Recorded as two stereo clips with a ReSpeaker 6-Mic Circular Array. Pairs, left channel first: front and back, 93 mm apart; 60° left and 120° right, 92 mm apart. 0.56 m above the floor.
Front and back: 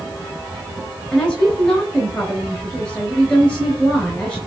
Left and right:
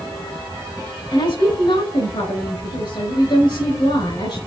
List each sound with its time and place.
1.1 s a woman speaking: 75° left, 3.5 m